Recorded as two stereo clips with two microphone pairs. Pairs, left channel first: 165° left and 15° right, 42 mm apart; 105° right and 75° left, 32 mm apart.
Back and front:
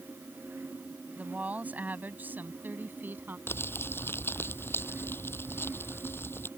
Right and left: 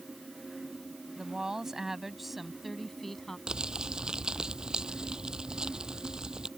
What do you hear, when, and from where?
1.2 s a woman speaking: 20° left; by 3.4 s 30° right
3.5 s crumpling: 140° left